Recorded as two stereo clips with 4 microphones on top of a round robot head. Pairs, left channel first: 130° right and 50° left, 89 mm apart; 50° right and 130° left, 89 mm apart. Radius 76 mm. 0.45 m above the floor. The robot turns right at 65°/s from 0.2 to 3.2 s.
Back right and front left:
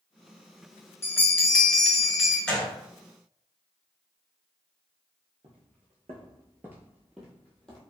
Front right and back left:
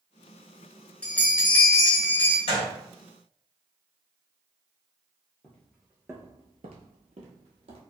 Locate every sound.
1.0 s a bell: 110° right, 1.1 m; by 2.4 s 25° right, 1.1 m
2.5 s a gunshot: 50° right, 1.6 m; by 2.7 s 30° right, 1.6 m
5.4 s footsteps: 25° left, 0.7 m; by 7.8 s 150° left, 1.1 m